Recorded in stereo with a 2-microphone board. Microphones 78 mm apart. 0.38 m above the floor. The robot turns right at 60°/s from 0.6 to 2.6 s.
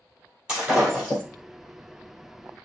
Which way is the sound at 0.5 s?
10° right.